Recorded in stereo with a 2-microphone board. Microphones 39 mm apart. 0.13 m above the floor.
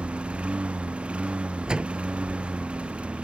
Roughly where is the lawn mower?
Right.